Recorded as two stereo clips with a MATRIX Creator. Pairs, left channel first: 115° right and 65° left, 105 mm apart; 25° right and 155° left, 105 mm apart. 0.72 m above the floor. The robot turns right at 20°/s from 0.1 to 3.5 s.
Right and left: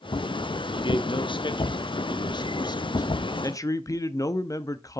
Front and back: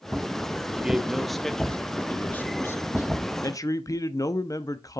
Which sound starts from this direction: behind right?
A man speaking, at 0.8 s.